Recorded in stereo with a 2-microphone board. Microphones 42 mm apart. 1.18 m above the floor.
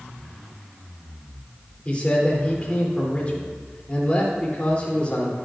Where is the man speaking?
30° left (ahead or behind), 3 m.